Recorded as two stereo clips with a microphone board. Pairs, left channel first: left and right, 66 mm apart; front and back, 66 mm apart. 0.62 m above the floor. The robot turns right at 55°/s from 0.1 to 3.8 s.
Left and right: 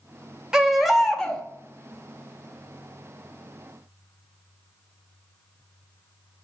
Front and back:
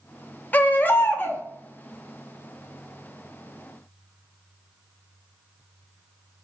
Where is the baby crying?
25° right, 0.6 m; by 1.4 s 25° left, 0.6 m.